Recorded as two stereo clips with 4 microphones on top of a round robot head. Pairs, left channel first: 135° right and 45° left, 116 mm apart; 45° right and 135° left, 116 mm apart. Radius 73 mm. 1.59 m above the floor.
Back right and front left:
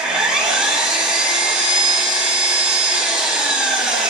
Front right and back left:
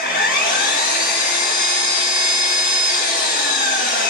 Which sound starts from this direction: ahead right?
An engine running, at 0.0 s.